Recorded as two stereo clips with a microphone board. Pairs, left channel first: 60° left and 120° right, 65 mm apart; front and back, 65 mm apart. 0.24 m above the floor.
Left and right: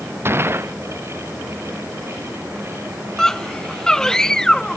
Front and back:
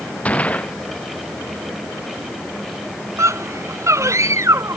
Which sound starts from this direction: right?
A gunshot, at 0.2 s.